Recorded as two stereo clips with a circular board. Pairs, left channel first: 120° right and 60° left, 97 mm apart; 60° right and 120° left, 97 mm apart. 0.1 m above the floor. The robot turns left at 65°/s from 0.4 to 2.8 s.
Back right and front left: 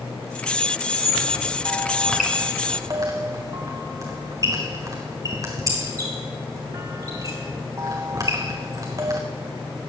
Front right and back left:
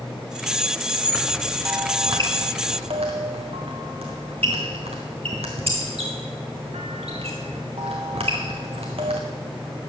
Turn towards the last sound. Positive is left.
turn(degrees=115)